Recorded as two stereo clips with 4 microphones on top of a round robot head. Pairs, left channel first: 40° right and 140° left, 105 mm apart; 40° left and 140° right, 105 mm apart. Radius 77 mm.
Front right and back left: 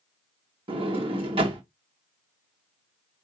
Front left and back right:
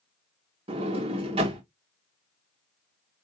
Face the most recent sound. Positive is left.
turn(degrees=180)